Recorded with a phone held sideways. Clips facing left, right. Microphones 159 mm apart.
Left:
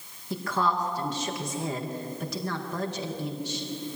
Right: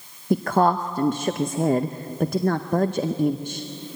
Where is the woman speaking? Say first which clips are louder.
Right 9 dB; 55° right (ahead or behind), 0.8 m.